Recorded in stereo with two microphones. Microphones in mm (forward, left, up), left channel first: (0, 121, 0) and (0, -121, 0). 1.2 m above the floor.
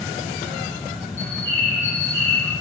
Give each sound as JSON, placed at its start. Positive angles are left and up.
{"t": 1.2, "sound": "a bird", "side_deg": 10, "distance_m": 4.5}